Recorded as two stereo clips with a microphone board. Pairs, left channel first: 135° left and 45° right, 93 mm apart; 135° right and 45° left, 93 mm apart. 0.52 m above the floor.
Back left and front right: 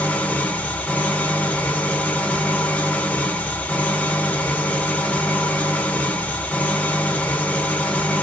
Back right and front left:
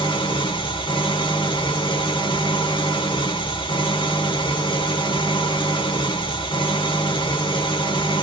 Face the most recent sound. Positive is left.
turn(degrees=-150)